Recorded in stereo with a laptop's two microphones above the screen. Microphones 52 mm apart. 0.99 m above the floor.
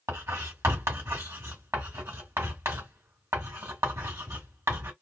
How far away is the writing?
About 2 m.